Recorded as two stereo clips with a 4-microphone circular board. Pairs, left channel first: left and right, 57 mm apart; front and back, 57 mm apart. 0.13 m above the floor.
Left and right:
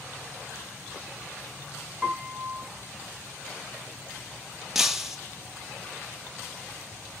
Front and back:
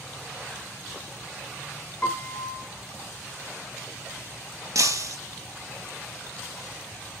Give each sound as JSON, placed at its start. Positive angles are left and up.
{"t": 2.0, "sound": "a piano", "azimuth_deg": -25, "distance_m": 1.8}
{"t": 4.8, "sound": "breaking glass", "azimuth_deg": -175, "distance_m": 2.0}